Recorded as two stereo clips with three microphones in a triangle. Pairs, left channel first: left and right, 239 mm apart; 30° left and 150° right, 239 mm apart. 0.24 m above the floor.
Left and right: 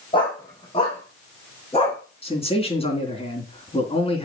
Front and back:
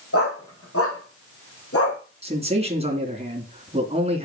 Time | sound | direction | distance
0.1 | a dog barking | 20° left | 5 m
2.2 | a man speaking | 150° left | 3 m